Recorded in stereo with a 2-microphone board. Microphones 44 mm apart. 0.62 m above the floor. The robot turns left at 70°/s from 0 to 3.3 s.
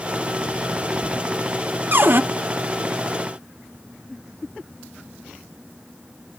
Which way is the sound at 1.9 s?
50° right (ahead or behind).